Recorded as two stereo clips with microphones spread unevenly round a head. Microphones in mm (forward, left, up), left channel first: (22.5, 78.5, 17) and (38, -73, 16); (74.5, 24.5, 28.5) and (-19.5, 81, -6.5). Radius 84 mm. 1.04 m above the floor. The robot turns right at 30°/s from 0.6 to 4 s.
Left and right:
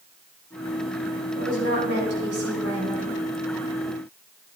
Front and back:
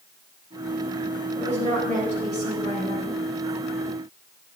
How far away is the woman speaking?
About 4.5 m.